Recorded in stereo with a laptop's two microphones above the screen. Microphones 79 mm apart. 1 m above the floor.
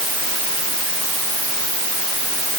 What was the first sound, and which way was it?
Only background noise.